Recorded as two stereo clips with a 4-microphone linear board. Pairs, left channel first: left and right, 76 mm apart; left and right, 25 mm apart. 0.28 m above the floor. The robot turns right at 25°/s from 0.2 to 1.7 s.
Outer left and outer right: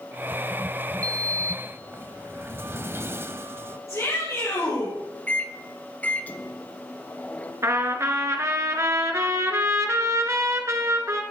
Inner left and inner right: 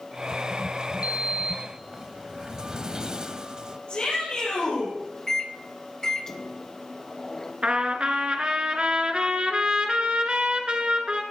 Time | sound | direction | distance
1.0 | a sliding door | 40° right (ahead or behind) | 0.6 m
3.9 | a shout | 40° left (ahead or behind) | 7 m
5.3 | a microwave | 20° left (ahead or behind) | 1.0 m
7.6 | a trumpet | 40° right (ahead or behind) | 1.7 m